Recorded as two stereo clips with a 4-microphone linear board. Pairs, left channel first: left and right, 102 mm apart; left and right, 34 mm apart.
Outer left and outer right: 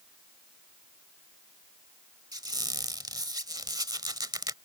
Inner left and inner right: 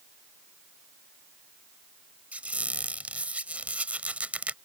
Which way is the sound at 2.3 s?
45° right (ahead or behind).